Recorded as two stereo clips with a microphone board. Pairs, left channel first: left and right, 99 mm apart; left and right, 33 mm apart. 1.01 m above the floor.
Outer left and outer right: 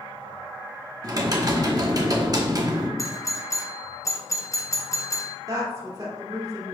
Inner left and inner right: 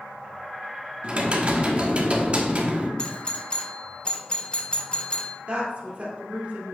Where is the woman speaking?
40° right (ahead or behind), 2 m.